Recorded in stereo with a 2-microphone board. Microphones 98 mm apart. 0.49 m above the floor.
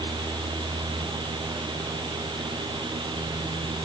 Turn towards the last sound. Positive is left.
No sound to turn to.